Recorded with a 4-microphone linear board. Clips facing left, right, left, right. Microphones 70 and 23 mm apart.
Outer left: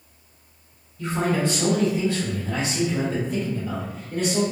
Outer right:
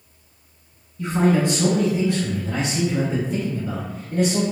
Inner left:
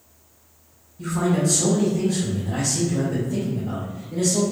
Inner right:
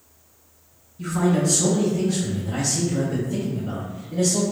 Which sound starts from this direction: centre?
A man speaking, at 1.0 s.